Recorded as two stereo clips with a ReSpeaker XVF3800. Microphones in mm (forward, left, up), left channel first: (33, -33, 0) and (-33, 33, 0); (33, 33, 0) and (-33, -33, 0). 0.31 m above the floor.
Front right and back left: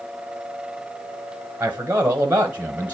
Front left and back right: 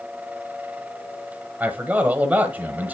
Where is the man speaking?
Straight behind, 1.0 m.